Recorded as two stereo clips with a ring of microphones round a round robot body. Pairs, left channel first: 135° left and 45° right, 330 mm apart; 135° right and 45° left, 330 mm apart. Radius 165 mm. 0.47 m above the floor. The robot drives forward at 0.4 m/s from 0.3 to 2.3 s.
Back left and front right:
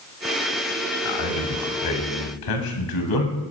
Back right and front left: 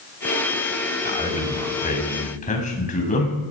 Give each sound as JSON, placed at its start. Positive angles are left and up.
{"t": 1.1, "sound": "a man speaking", "azimuth_deg": 155, "distance_m": 2.5}